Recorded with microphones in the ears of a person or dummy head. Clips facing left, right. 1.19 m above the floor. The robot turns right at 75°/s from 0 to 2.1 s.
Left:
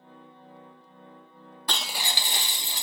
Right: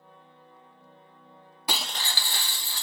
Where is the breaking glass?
10° right, 0.5 m; by 2.8 s 25° left, 0.5 m.